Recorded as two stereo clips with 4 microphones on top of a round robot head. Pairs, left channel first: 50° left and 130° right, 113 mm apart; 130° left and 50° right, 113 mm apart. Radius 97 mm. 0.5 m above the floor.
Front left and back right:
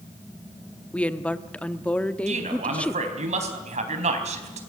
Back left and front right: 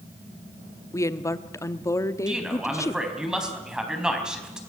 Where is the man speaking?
135° right, 4 m.